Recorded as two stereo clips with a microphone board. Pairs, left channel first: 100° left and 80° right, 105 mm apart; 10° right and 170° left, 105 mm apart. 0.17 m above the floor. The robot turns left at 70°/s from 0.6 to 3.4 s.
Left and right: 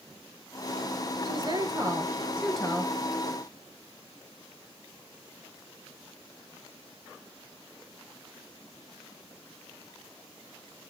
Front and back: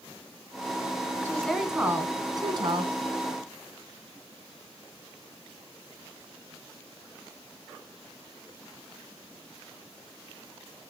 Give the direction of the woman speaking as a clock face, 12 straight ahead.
3 o'clock.